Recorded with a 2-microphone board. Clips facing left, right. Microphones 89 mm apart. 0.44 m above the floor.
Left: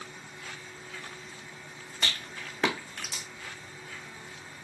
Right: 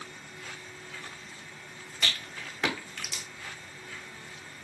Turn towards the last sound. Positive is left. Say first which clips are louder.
# even
turn(degrees=35)  # may be behind; listen again after turning